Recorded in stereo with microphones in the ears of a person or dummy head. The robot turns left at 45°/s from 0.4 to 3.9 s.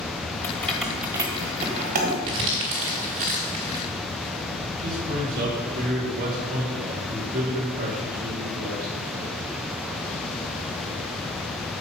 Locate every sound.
0.4 s keys jangling: 15° left (ahead or behind), 1.3 m; by 2.2 s 55° right (ahead or behind), 1.3 m
2.3 s crumpling: 25° right (ahead or behind), 1.4 m; by 3.9 s 20° right (ahead or behind), 1.4 m
4.8 s a man speaking: 55° right (ahead or behind), 3.5 m